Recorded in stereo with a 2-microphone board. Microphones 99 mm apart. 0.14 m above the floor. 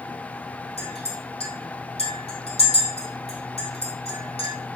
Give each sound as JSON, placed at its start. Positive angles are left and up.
{"t": 0.8, "sound": "a clink", "side_deg": 80, "distance_m": 3.5}